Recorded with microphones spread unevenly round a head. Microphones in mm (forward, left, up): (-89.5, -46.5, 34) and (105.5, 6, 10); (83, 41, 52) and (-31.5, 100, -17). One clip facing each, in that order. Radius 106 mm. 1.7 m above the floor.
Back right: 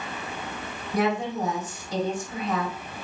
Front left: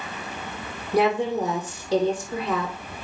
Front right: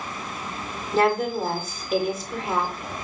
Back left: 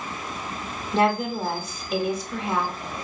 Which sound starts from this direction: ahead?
A woman speaking, at 0.9 s.